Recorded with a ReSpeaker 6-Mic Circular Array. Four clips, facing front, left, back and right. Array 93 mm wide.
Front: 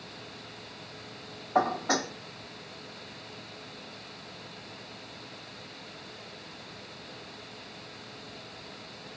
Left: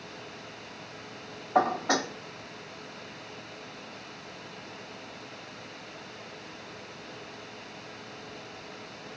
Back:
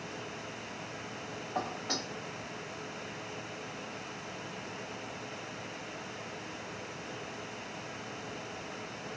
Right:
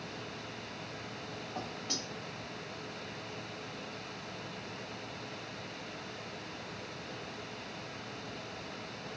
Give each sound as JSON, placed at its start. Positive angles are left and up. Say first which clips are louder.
{"t": 1.6, "sound": "dishes clattering", "louder": "left 19 dB, front 11 dB", "azimuth_deg": 55}